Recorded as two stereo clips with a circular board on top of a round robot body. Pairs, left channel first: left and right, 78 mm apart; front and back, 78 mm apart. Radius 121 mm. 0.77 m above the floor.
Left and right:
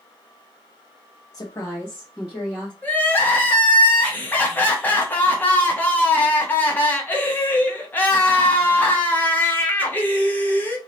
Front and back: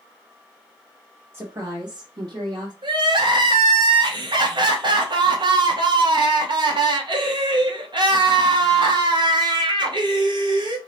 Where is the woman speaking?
120° left, 1.2 m; by 2.7 s 155° right, 1.9 m.